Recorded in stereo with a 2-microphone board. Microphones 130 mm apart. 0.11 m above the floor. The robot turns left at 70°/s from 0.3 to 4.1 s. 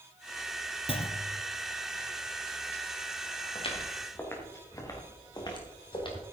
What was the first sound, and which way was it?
A clunk, 105° left.